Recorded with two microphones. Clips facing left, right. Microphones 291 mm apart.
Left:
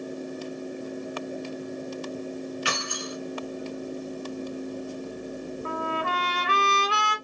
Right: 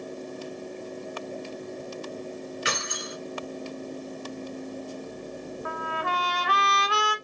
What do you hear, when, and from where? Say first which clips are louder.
2.6 s keys jangling: left 2 dB; 20° right (ahead or behind), 0.9 m
5.7 s a trumpet: left 4 dB; 30° left (ahead or behind), 0.6 m